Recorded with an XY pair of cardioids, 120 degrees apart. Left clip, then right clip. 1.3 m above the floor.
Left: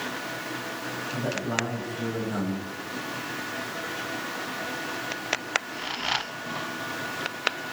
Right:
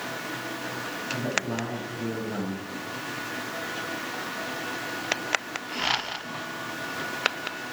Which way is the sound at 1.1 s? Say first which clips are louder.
Even; 5° left.